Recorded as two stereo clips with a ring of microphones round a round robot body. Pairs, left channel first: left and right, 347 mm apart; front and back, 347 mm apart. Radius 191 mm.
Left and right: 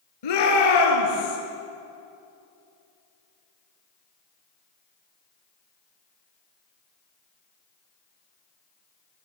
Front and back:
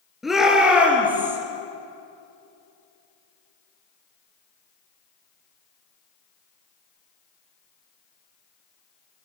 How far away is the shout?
About 7 m.